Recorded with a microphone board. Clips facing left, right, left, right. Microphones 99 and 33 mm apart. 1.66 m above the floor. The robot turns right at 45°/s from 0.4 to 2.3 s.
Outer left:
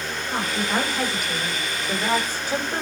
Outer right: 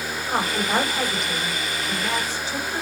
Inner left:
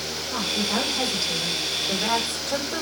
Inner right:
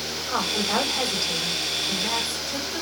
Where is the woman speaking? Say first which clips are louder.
Outer right 2 dB, inner right 1 dB; 35° right, 9.5 m; by 2.8 s 50° left, 9.5 m.